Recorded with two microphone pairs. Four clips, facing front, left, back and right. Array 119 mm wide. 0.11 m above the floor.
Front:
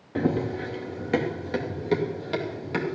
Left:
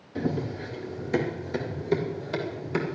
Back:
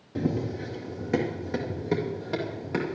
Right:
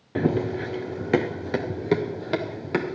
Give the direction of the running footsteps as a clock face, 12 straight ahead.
2 o'clock.